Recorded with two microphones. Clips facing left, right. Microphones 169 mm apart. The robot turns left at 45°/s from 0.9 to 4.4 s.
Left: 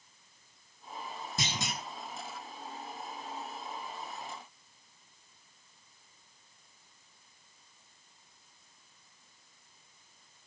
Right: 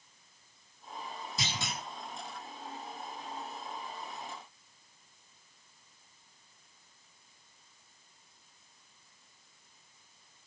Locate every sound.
1.4 s a clunk: 50° left (ahead or behind), 6 m; by 1.8 s 35° left (ahead or behind), 6 m